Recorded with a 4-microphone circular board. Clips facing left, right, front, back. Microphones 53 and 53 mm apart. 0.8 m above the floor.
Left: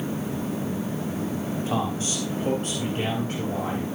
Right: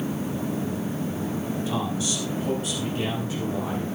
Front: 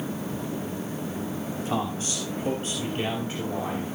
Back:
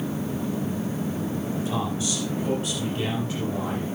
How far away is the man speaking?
About 4 m.